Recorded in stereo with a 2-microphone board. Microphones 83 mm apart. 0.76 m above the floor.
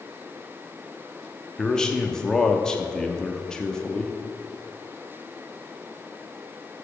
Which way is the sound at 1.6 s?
10° left (ahead or behind).